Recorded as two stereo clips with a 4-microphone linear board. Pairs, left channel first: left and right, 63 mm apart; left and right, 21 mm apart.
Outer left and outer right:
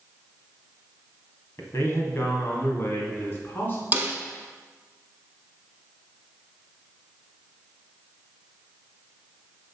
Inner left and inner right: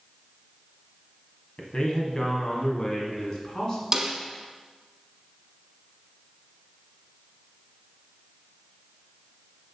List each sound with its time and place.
1.6 s a man speaking: 45° left (ahead or behind), 1.5 m; by 3.8 s 30° left (ahead or behind), 2.5 m
3.9 s a snare drum: 25° right (ahead or behind), 0.9 m